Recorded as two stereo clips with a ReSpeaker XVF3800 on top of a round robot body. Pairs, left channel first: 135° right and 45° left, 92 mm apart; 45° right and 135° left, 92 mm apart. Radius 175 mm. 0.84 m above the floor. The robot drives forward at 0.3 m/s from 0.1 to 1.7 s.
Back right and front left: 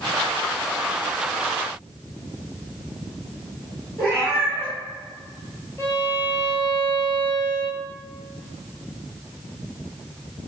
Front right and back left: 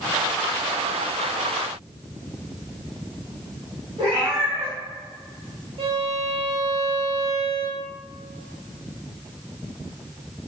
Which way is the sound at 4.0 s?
160° left.